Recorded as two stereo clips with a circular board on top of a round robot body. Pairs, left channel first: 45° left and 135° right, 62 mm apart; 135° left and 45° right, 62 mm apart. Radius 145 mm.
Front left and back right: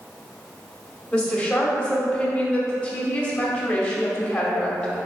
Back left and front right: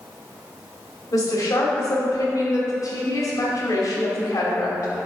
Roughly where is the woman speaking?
Behind left.